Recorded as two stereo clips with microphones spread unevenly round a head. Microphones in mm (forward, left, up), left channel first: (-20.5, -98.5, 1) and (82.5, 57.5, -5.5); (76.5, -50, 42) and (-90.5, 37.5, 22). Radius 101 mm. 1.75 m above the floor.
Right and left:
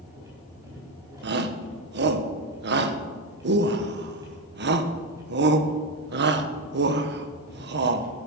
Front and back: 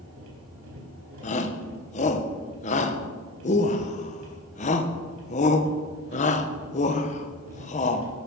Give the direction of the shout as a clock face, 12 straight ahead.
11 o'clock.